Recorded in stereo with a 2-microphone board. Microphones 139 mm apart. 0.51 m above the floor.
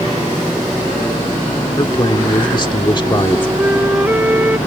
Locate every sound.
1.8 s a man speaking: 35° left (ahead or behind)
3.6 s a flute: 15° right (ahead or behind)